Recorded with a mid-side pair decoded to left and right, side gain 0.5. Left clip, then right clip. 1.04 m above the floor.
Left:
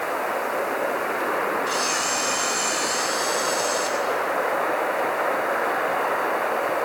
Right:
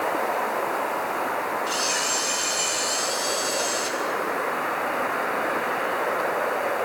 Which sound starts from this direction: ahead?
A camera shutter, at 1.7 s.